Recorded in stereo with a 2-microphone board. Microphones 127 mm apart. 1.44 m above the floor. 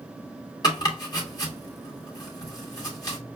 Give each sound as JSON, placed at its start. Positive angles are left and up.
{"t": 0.6, "sound": "chopping", "side_deg": 30, "distance_m": 1.9}